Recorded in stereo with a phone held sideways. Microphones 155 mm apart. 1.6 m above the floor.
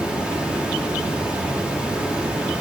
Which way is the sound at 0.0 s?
10° right (ahead or behind).